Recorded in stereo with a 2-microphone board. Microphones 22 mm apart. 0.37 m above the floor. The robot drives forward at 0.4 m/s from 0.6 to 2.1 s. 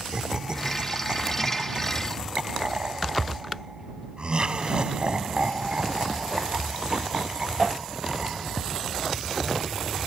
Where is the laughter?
35° right (ahead or behind); by 8.6 s 45° right (ahead or behind).